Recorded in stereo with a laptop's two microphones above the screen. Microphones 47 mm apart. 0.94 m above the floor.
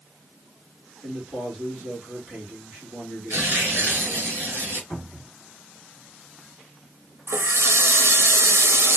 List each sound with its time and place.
1.0 s a man speaking: 20° right (ahead or behind), 1.5 m
3.3 s tearing paper: 60° right (ahead or behind), 1.6 m
4.9 s a cupboard door: centre (ahead or behind), 1.7 m
7.3 s a running tap: 80° right, 0.6 m